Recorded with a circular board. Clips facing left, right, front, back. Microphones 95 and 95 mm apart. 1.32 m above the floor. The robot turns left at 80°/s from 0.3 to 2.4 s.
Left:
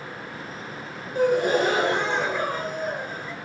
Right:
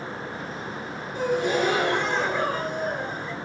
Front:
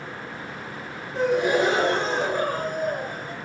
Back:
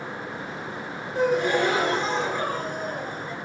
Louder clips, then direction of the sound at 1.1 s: Left 3 dB, front 1 dB; 100° left.